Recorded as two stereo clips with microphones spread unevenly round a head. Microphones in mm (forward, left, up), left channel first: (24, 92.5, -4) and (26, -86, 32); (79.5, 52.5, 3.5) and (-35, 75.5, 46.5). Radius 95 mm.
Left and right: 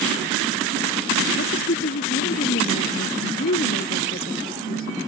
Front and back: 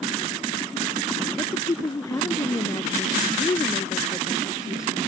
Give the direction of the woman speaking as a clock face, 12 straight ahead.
10 o'clock.